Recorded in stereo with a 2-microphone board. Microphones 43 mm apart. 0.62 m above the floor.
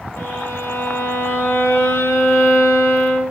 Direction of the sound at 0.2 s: 75° left (ahead or behind).